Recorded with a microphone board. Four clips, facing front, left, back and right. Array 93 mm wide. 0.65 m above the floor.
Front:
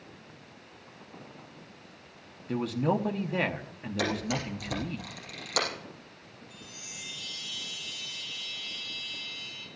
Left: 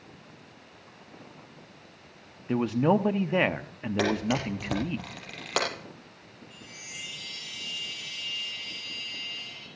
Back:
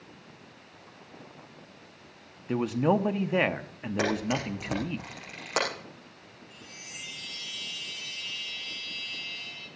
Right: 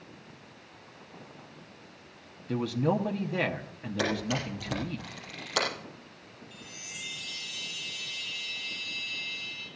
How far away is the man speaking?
About 1.0 m.